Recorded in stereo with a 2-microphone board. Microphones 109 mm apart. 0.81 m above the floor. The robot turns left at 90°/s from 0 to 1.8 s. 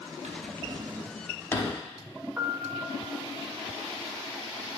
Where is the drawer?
85° right, 0.8 m; by 1.8 s 45° left (ahead or behind), 0.8 m.